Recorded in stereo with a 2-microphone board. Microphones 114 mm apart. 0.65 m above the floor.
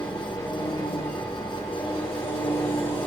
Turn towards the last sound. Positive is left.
turn(degrees=50)  # may be behind; listen again after turning